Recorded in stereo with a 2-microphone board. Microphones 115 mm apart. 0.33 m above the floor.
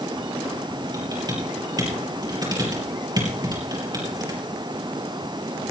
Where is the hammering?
I don't hear hammering.